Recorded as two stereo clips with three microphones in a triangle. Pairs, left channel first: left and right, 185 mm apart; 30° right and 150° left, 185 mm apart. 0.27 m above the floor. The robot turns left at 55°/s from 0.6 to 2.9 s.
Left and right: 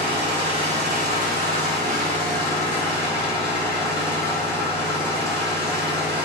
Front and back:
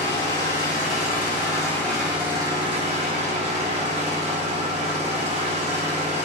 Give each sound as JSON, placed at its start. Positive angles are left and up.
{"t": 0.0, "sound": "an engine running", "azimuth_deg": -45, "distance_m": 1.6}